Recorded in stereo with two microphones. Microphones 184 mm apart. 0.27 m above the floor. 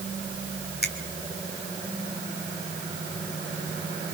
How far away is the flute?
I don't hear a flute.